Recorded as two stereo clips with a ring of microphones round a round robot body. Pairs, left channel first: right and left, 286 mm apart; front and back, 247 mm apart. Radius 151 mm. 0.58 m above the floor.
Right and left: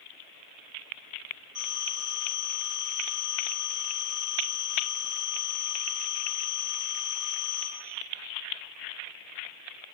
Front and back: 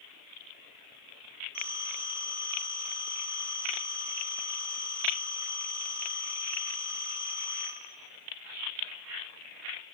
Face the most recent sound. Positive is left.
turn(degrees=70)